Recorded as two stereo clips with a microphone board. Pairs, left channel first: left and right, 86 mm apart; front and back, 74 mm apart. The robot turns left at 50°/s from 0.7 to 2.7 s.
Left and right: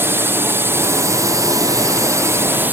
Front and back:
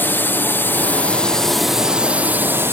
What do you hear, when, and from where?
0.0 s a drone: 45° right; by 2.7 s 145° right